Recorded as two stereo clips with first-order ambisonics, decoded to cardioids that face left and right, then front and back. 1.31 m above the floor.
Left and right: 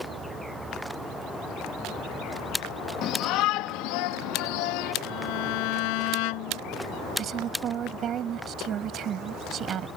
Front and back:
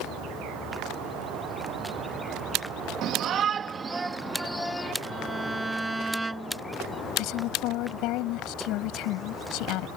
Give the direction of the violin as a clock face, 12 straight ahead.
9 o'clock.